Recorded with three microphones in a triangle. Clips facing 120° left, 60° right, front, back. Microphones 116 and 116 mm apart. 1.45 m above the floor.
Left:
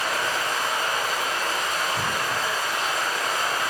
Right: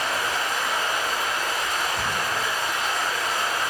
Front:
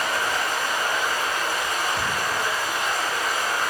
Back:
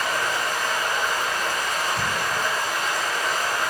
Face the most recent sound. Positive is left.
turn(degrees=80)